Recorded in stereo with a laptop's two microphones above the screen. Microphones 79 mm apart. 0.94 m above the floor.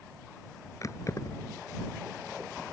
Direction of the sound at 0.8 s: 45° left (ahead or behind).